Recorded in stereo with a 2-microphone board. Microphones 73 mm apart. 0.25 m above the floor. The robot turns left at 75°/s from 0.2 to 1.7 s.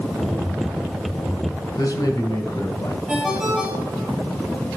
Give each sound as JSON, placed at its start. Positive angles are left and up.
{"t": 1.8, "sound": "a man speaking", "side_deg": 55, "distance_m": 2.0}
{"t": 3.1, "sound": "a ringtone", "side_deg": -5, "distance_m": 3.5}